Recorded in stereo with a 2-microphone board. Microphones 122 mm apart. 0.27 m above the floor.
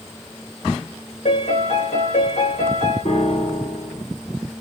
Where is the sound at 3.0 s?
65° left (ahead or behind), 3.5 m.